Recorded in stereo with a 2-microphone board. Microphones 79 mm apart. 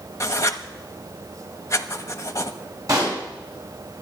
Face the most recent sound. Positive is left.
turn(degrees=-45)  # may be behind; listen again after turning